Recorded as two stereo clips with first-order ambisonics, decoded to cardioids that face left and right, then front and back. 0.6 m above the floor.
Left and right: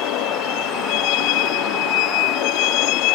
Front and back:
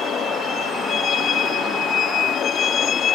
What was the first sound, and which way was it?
A vehicle, 65° left.